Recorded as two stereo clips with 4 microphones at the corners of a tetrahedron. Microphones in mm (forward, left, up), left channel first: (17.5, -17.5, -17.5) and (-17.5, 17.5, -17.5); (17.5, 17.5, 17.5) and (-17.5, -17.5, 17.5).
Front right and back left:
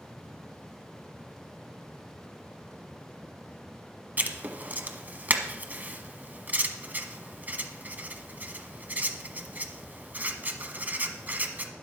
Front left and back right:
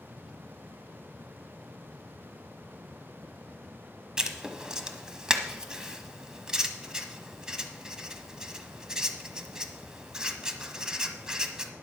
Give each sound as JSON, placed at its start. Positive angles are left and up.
{"t": 4.2, "sound": "writing", "azimuth_deg": 155, "distance_m": 1.1}